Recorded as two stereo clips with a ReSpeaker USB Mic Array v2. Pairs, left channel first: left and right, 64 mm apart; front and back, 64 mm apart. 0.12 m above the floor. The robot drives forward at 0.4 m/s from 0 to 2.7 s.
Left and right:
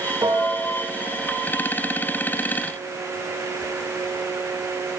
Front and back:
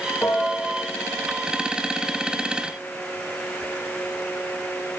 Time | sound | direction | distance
0.2 | a piano | 55° right | 4 m